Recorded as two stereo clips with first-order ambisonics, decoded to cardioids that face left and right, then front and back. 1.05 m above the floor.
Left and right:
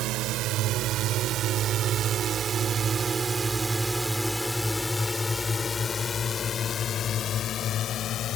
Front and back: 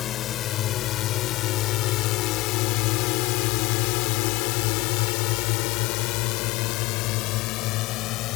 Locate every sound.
0.0 s a drone: 55° right; by 8.4 s 35° left